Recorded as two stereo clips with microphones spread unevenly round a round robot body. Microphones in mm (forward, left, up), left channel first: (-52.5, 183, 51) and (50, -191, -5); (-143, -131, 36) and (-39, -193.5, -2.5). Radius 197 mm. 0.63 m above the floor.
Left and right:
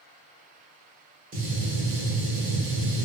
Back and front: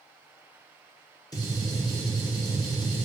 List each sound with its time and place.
1.3 s a gunshot: 140° right, 1.0 m